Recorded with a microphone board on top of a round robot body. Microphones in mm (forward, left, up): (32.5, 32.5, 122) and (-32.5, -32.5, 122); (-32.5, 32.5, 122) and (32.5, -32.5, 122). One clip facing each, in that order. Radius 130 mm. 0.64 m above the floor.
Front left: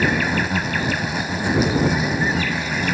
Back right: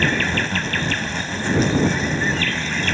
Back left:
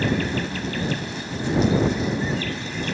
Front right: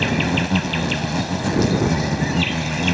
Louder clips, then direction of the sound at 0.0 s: Front left 1 dB, front right 3 dB; 35° right.